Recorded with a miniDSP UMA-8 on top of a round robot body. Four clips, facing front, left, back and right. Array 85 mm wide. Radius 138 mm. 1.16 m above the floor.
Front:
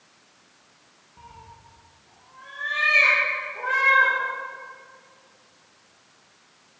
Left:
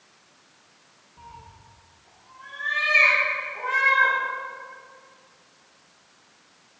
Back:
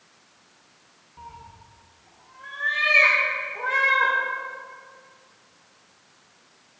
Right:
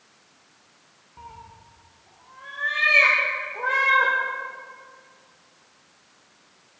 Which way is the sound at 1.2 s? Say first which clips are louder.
Right 2 dB, back 3 dB; 100° right.